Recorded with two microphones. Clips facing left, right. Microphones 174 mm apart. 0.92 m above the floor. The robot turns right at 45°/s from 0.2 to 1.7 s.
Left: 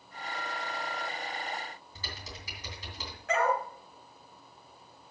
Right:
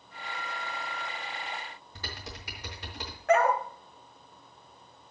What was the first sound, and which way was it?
Typing on a keyboard, 65° right (ahead or behind).